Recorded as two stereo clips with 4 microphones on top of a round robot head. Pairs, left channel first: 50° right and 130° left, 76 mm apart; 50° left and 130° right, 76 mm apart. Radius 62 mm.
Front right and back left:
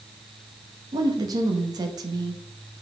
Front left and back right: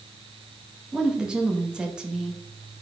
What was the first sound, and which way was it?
A woman speaking, 150° left.